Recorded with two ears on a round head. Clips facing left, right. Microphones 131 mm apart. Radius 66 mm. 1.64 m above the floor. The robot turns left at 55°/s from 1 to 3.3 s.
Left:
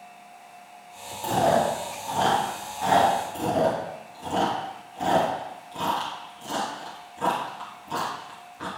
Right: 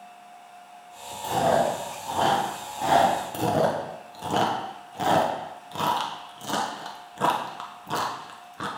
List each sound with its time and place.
1.2 s chewing: 50° left (ahead or behind), 2.5 m; by 3.1 s 50° right (ahead or behind), 2.5 m
3.3 s chewing: 70° right (ahead or behind), 1.1 m